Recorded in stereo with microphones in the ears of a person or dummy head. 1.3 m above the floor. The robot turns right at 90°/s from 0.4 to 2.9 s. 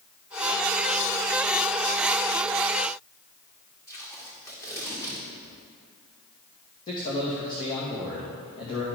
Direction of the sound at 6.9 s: 30° left (ahead or behind).